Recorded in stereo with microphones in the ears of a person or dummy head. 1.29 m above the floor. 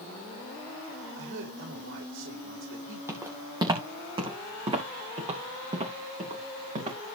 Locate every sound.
1.1 s a man speaking: 70° right (ahead or behind), 6 m
3.1 s footsteps: 15° right (ahead or behind), 1.8 m; by 7.0 s 40° right (ahead or behind), 5.5 m